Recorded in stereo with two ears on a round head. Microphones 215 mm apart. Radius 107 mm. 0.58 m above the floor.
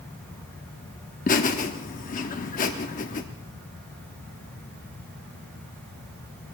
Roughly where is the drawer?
I don't hear a drawer.